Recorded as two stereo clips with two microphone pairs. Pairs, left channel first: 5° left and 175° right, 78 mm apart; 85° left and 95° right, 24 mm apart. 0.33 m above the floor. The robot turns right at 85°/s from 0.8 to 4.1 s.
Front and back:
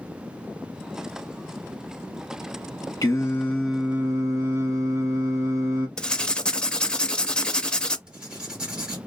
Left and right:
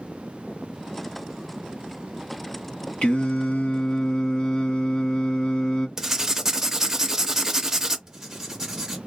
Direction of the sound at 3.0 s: 40° left.